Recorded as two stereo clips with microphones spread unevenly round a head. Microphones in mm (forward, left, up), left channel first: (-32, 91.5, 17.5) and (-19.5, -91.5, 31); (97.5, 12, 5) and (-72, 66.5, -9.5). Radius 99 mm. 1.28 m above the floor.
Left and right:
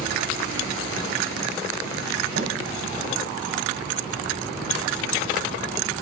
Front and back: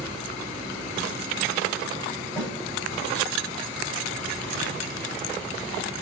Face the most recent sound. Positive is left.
turn(degrees=-95)